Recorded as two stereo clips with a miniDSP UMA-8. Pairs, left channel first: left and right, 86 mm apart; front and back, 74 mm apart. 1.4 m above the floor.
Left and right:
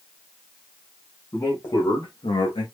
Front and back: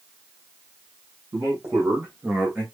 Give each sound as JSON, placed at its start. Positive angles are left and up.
{"t": 1.3, "sound": "a man speaking", "azimuth_deg": 140, "distance_m": 1.7}